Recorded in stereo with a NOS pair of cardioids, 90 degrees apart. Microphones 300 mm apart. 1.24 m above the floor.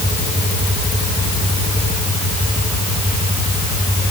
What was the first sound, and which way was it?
Only background noise.